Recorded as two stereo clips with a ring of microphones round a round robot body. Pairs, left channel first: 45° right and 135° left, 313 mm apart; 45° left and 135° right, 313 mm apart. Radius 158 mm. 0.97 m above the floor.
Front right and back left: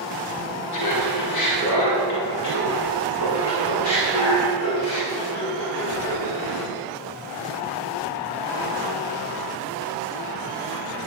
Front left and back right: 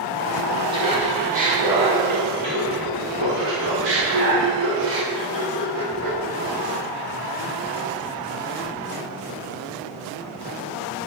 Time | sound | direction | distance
0.7 | laughter | 60° right | 1.7 m